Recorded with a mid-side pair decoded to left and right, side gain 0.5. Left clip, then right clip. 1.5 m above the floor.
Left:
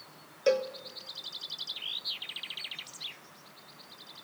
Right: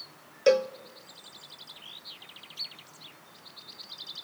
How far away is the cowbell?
About 0.6 m.